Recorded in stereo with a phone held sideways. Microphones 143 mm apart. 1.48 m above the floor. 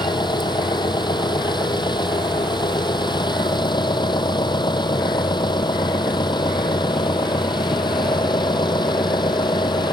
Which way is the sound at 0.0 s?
30° left (ahead or behind).